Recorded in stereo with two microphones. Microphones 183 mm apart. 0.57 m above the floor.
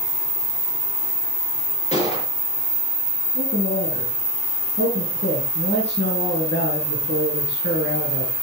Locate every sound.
1.9 s a gunshot: 35° left (ahead or behind), 5.5 m
3.4 s a man speaking: 85° left, 6.5 m